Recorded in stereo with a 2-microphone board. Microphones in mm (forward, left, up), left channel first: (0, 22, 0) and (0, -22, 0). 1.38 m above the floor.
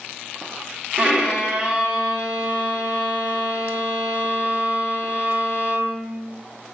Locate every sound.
1.0 s a violin: 25° right (ahead or behind), 1.5 m